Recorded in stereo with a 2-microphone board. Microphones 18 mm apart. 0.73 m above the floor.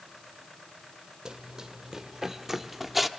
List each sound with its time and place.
1.2 s running footsteps: 40° right (ahead or behind), 1.6 m; by 3.1 s centre (ahead or behind), 1.4 m